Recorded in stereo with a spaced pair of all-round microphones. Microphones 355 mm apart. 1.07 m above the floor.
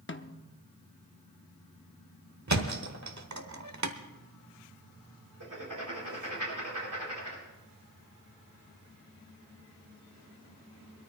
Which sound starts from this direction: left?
A snare drum, at 0.1 s.